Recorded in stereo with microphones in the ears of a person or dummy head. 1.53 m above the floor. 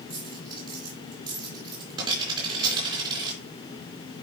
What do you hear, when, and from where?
0.1 s a dropped coin: 35° right (ahead or behind), 4.5 m